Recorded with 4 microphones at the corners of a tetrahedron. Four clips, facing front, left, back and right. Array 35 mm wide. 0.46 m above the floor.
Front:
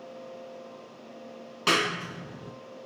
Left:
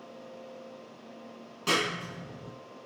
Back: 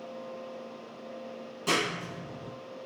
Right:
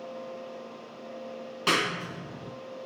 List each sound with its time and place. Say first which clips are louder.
1.7 s a clap: right 2 dB, front 4 dB; 35° right, 3.5 m